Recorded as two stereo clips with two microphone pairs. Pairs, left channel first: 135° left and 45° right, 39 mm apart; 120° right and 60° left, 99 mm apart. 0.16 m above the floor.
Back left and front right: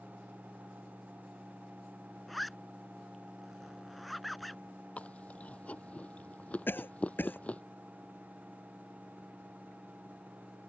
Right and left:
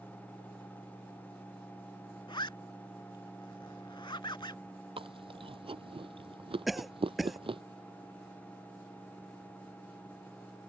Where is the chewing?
85° left.